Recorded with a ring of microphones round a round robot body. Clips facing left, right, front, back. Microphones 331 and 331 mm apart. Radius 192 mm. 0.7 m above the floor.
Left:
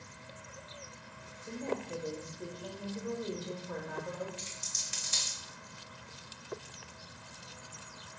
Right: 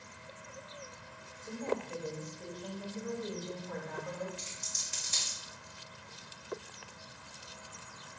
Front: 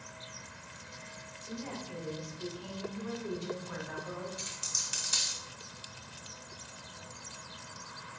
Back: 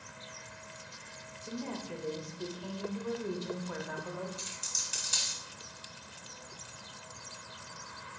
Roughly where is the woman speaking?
Behind.